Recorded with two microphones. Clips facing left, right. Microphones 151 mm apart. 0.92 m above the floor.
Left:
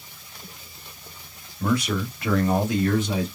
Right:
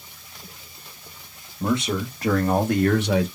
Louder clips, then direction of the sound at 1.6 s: Even; 15° right (ahead or behind).